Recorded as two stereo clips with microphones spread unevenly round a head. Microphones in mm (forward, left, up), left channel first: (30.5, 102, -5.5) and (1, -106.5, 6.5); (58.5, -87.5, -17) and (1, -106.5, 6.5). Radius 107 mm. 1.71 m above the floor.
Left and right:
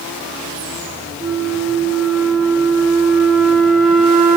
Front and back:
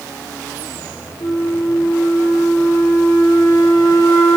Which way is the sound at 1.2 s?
10° right.